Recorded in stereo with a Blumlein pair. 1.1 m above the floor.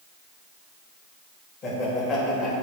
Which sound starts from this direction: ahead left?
Laughter, at 1.6 s.